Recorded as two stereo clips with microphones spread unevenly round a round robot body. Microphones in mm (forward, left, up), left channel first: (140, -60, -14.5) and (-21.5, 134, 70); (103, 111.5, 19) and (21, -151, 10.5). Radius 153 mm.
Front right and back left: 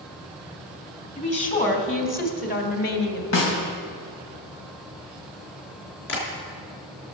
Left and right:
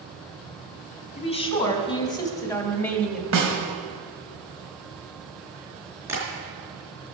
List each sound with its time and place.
1.2 s a woman speaking: 5° left, 3 m; by 3.2 s 15° right, 1.9 m
3.3 s a snare drum: 75° right, 3 m
6.1 s tapping: 25° right, 4 m